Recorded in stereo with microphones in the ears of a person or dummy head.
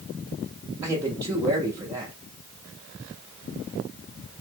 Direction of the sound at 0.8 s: 15° right (ahead or behind).